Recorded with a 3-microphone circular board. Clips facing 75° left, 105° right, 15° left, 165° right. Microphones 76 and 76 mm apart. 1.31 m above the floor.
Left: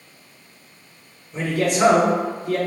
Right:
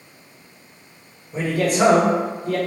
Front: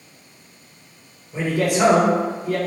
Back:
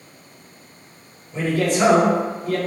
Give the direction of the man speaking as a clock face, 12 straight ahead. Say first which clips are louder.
Right 1 dB, even; 2 o'clock.